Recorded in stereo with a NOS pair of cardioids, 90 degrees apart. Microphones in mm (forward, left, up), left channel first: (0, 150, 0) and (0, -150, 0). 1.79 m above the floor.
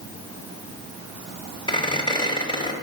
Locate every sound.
1.7 s a squeak: 15° left, 3 m